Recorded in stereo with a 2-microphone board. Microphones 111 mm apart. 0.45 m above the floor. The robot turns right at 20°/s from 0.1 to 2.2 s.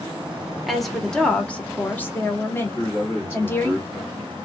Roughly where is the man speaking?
Left.